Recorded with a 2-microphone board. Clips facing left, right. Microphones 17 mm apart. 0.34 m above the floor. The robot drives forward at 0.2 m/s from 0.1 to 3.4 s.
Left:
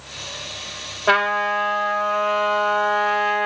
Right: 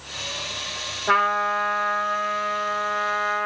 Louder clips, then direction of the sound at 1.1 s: Left 2 dB; 70° left (ahead or behind).